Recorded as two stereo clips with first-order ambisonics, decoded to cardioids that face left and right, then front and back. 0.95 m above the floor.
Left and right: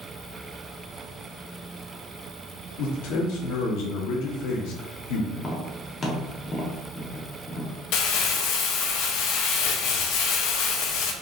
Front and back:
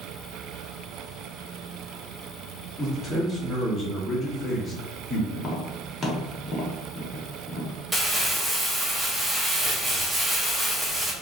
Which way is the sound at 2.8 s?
75° left.